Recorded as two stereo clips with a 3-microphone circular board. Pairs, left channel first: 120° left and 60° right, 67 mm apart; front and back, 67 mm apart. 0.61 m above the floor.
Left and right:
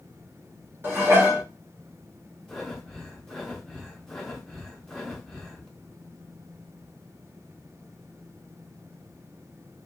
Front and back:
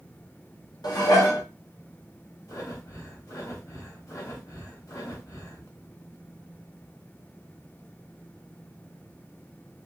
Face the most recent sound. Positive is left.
turn(degrees=35)